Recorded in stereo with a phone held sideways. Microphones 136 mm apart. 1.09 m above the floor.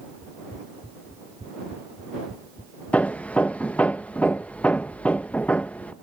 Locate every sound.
2.9 s hammering: 10° left (ahead or behind)